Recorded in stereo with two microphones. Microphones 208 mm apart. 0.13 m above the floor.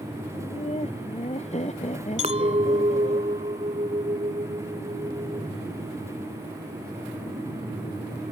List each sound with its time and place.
0.3 s laughter: 30° left (ahead or behind); by 3.2 s 35° left (ahead or behind)
2.2 s a clink: 35° right (ahead or behind)